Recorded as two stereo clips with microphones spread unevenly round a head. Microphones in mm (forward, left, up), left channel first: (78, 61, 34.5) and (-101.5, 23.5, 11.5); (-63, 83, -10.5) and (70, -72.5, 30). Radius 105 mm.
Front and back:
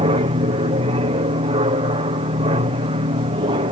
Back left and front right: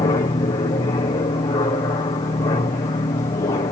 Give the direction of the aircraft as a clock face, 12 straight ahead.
6 o'clock.